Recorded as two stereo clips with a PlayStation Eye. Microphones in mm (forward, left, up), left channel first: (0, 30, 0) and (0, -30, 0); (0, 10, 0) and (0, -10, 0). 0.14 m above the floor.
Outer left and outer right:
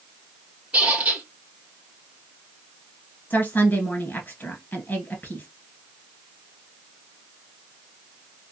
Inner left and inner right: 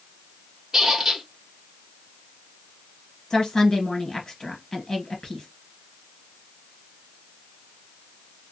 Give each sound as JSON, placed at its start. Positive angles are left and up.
{"t": 0.7, "sound": "a squeak", "side_deg": -20, "distance_m": 1.8}
{"t": 3.3, "sound": "a woman speaking", "side_deg": 35, "distance_m": 1.5}